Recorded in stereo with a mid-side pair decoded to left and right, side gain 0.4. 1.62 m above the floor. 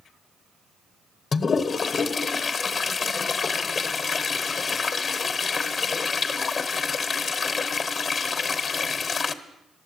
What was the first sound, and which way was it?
A toilet flushing, 50° left.